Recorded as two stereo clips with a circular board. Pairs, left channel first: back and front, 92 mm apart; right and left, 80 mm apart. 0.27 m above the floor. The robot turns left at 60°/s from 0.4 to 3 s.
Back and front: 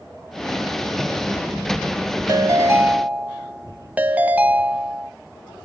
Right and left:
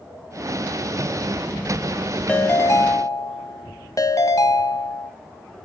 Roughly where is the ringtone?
Ahead right.